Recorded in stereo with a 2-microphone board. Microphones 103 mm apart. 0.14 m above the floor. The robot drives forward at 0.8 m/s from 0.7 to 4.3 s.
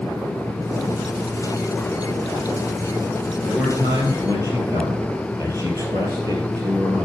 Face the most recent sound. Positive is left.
turn(degrees=-40)  # may be behind; listen again after turning